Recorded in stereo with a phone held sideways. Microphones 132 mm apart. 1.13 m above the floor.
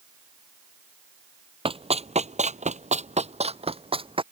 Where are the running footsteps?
40° right (ahead or behind).